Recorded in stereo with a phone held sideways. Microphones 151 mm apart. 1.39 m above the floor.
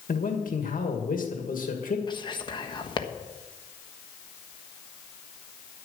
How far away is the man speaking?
About 2 m.